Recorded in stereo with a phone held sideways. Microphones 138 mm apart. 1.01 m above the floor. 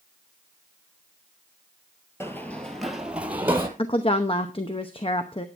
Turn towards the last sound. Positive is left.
turn(degrees=40)  # may be behind; listen again after turning